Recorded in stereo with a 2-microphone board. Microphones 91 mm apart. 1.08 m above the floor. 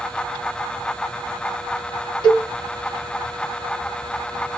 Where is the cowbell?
60° left (ahead or behind), 2 m.